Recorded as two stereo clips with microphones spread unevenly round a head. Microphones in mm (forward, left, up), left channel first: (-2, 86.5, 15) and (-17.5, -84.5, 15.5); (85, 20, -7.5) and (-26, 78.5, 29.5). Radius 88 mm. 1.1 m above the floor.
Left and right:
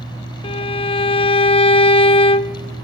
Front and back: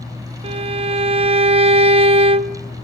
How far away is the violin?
About 0.8 m.